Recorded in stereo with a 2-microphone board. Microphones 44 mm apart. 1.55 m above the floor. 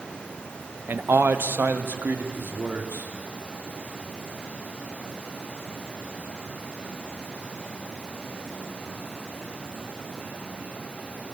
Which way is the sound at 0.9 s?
55° right (ahead or behind).